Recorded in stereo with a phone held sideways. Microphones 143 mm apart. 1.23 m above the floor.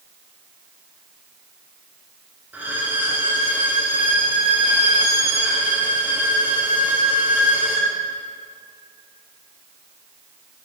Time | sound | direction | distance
2.5 | a violin | 10° right (ahead or behind) | 1.5 m